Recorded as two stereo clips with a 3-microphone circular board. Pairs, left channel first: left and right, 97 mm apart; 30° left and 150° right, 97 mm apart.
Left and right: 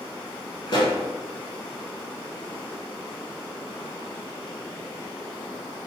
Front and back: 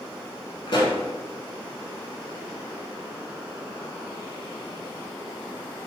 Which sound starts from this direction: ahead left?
A pop, at 0.7 s.